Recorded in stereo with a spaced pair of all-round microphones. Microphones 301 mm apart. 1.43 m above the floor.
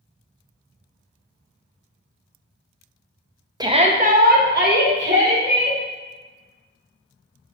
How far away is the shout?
About 0.5 m.